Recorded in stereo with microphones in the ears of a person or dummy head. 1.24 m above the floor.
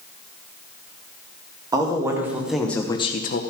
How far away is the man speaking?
About 1.9 m.